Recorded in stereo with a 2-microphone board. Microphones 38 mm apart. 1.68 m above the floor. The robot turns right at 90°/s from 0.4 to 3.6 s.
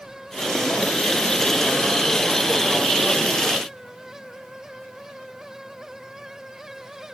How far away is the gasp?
No gasp in this recording.